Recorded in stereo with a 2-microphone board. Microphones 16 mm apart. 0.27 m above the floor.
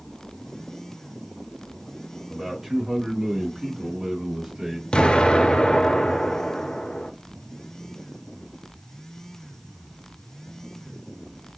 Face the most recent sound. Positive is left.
turn(degrees=80)